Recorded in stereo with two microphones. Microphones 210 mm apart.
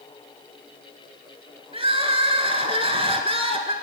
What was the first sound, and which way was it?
Crying, 30° right (ahead or behind).